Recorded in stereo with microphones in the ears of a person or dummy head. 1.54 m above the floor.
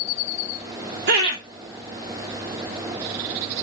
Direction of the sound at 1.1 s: 60° right (ahead or behind).